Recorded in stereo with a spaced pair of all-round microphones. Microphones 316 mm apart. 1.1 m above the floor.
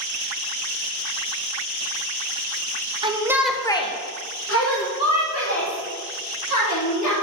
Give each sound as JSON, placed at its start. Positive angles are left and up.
{"t": 3.0, "sound": "a shout", "side_deg": -15, "distance_m": 0.9}